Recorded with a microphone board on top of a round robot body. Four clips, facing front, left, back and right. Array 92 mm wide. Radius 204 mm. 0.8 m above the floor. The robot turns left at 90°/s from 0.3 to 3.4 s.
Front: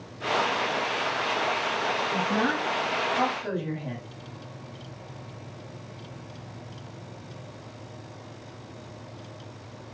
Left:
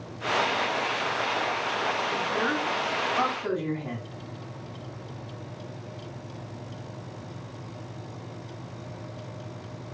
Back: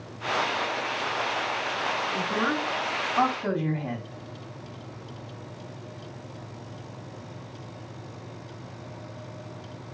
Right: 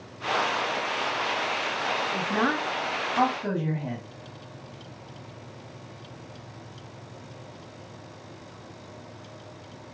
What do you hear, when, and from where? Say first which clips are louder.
2.1 s a woman speaking: right 1 dB, front 1 dB; 40° right, 2.0 m; by 4.0 s 155° right, 2.0 m